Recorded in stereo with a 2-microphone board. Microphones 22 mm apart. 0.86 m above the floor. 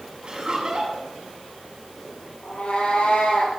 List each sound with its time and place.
0.2 s laughter: 35° right (ahead or behind), 6 m
2.4 s a cat meowing: 60° left (ahead or behind), 7.5 m